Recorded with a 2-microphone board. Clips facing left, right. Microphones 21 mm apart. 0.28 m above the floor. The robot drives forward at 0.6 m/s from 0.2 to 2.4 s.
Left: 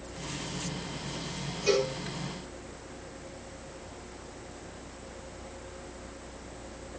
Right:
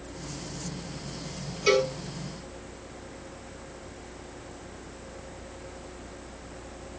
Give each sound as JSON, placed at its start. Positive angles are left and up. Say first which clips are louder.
{"t": 1.7, "sound": "a cowbell", "louder": "right 4 dB", "side_deg": -55, "distance_m": 1.9}